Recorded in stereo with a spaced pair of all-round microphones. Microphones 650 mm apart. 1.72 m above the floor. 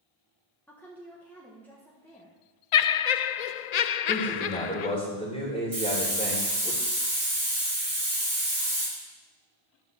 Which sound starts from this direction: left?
Laughter, at 2.7 s.